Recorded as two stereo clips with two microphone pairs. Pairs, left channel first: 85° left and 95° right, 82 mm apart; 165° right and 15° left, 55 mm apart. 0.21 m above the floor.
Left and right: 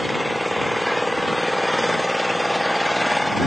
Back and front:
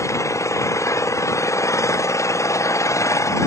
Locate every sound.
0.0 s an engine running: 175° left